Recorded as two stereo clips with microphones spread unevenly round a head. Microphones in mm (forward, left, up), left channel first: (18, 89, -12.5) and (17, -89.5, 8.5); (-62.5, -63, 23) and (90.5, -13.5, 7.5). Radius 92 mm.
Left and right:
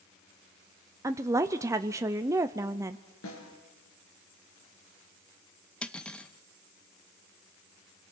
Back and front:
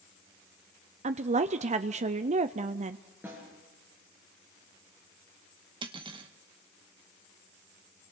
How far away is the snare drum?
About 5.5 m.